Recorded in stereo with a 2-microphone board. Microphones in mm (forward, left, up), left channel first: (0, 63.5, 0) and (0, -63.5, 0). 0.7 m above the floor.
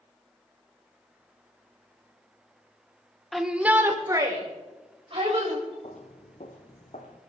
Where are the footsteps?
60° left (ahead or behind), 1.6 m; by 7.2 s 70° left (ahead or behind), 2.5 m.